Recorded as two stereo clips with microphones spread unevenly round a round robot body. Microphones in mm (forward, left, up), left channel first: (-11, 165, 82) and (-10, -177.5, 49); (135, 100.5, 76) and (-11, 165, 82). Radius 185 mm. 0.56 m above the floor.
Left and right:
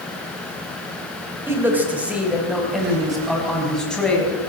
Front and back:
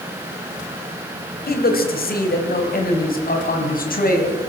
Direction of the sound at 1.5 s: 10° right.